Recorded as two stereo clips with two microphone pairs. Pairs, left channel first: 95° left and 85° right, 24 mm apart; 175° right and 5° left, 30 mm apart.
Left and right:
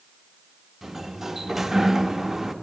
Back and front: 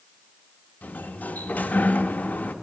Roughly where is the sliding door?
Behind.